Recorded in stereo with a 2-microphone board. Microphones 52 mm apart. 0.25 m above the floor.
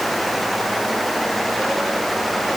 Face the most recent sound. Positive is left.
No sound to turn to.